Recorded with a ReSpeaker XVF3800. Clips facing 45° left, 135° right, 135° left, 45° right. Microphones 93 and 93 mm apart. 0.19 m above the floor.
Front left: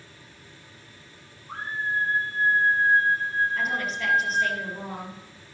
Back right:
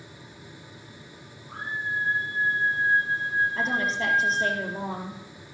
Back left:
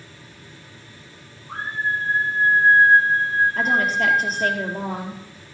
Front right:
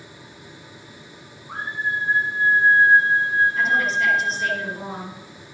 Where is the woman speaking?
170° left, 3.5 m.